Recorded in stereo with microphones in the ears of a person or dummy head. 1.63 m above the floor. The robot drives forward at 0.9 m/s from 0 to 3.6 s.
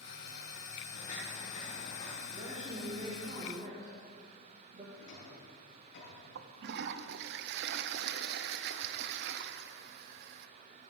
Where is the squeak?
I don't hear a squeak.